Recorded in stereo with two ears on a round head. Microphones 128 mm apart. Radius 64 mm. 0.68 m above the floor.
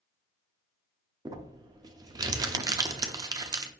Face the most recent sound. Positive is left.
turn(degrees=-25)  # may be behind; listen again after turning